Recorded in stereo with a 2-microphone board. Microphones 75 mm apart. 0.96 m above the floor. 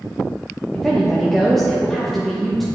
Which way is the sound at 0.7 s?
5° left (ahead or behind).